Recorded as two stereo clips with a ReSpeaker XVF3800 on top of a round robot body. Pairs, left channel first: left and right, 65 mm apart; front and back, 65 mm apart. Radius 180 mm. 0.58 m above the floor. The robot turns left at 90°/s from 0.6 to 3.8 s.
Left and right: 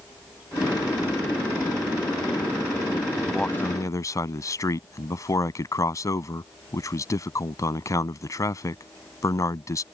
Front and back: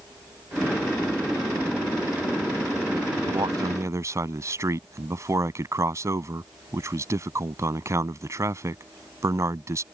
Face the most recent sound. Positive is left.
turn(degrees=130)